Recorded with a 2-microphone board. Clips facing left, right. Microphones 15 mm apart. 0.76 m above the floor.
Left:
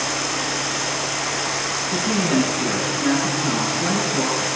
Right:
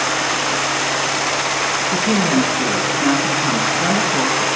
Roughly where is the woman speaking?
Right.